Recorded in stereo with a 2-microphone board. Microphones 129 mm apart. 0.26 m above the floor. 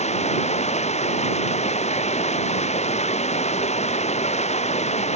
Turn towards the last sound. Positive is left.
turn(degrees=60)  # may be behind; listen again after turning